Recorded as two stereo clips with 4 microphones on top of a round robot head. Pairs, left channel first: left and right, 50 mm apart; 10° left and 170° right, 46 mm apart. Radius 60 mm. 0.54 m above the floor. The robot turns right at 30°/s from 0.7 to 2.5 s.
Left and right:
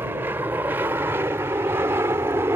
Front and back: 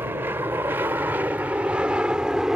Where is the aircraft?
130° right; by 2.6 s 95° right.